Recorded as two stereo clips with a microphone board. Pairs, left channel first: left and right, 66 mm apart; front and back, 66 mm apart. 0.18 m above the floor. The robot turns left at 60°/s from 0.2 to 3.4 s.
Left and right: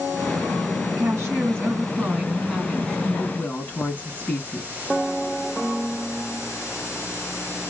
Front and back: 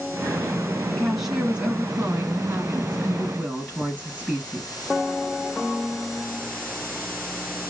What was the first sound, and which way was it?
A woman speaking, 75° right.